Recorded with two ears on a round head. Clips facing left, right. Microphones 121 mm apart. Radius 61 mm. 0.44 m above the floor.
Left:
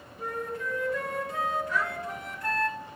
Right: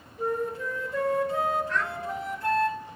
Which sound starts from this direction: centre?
A child speaking, at 1.7 s.